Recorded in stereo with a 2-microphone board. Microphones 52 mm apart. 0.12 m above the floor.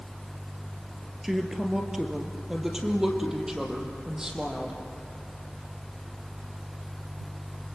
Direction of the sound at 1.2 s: 5° right (ahead or behind).